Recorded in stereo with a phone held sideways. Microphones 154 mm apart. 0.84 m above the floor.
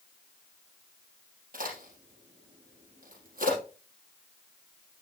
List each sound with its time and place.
1.5 s a crack: 75° right (ahead or behind), 4.5 m